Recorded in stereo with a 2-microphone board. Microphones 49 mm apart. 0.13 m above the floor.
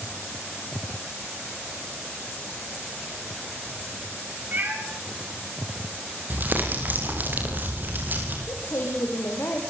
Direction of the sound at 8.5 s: 65° left (ahead or behind).